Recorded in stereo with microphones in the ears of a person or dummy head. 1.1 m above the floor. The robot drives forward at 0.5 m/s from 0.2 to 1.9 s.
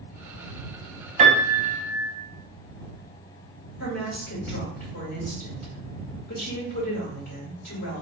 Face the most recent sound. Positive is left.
turn(degrees=50)  # may be behind; listen again after turning